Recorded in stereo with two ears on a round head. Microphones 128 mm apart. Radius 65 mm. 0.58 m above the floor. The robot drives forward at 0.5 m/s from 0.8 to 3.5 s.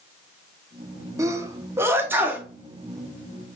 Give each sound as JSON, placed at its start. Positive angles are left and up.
{"t": 1.2, "sound": "a sneeze", "side_deg": -20, "distance_m": 0.6}